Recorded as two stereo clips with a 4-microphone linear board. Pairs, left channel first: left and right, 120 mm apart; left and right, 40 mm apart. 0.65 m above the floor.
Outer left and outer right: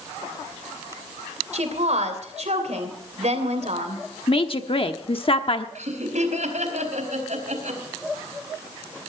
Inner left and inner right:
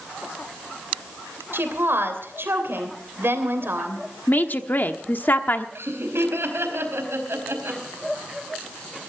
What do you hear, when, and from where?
1.5 s a woman speaking: 70° right (ahead or behind), 3 m
4.3 s a woman speaking: 50° left (ahead or behind), 1.1 m
5.8 s laughter: 80° right, 4 m